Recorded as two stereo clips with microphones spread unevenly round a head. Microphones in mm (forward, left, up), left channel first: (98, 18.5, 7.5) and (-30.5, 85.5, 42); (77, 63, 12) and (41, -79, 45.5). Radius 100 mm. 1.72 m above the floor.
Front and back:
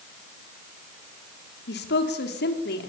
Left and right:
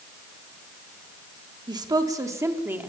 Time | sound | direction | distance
1.7 | a woman speaking | 45° right | 3.5 m